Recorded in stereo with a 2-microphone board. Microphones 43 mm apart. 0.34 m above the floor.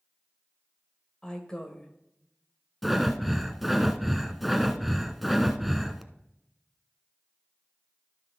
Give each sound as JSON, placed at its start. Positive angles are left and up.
{"t": 1.2, "sound": "a woman speaking", "side_deg": 20, "distance_m": 1.4}
{"t": 2.8, "sound": "breathing", "side_deg": 0, "distance_m": 0.7}